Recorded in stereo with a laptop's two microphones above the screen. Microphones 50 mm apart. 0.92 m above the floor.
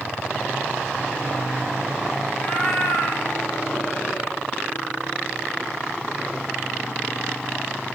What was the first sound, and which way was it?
A cat meowing, 40° left (ahead or behind).